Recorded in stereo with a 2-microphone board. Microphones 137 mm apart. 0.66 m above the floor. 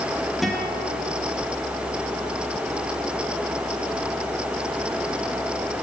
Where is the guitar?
Centre (ahead or behind), 9.5 m.